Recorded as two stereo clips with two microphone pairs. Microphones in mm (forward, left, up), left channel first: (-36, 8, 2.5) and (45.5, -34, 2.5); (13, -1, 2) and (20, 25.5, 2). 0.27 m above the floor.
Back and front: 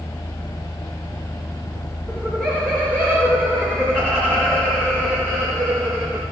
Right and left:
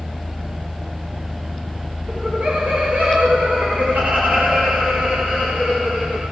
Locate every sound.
2.1 s laughter: 75° left, 5.5 m